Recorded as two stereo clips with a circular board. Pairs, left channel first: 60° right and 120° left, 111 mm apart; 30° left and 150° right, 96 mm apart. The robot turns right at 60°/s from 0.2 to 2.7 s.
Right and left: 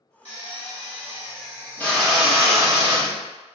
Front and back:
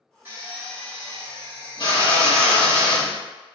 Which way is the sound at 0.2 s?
80° right.